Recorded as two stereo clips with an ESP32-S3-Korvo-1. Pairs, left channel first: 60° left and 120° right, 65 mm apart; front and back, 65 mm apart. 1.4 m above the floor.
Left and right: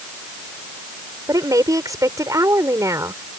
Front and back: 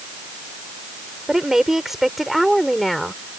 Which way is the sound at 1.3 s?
95° right.